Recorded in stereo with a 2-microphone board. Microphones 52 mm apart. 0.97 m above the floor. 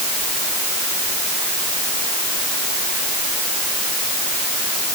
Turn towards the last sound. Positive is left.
No sound to turn to.